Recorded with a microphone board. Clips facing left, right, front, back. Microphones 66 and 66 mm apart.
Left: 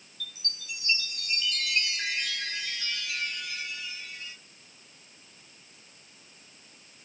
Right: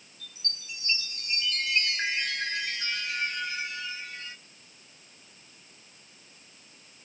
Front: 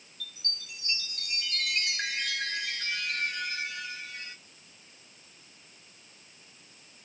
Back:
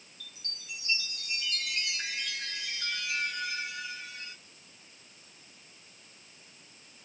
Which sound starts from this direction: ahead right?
A chime, at 0.2 s.